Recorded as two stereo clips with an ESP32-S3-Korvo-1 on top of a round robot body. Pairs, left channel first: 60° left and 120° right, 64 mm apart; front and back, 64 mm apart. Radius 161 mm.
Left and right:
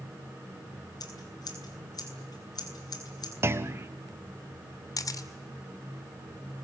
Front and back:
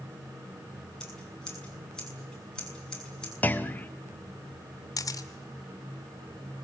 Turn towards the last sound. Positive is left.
turn(degrees=30)